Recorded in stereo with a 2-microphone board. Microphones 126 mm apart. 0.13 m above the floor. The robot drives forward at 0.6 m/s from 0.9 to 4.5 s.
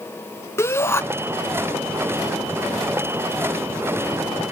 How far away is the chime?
I don't hear a chime.